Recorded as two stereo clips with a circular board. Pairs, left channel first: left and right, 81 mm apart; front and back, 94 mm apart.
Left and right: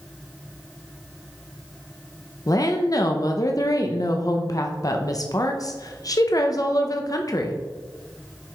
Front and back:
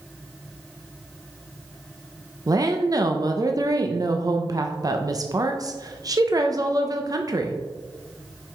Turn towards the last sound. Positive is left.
turn(degrees=130)